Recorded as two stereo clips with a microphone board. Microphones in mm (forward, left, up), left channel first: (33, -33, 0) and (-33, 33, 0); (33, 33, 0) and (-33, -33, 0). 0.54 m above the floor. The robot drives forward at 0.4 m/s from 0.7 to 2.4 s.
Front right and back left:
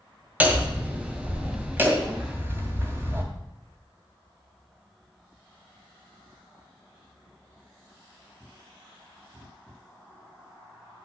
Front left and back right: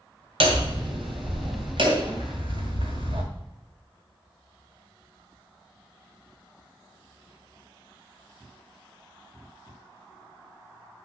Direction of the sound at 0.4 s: 150° right.